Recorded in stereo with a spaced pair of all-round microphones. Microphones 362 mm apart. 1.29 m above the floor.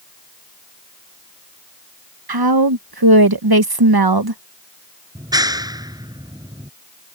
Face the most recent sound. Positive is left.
turn(degrees=-10)  # may be behind; listen again after turning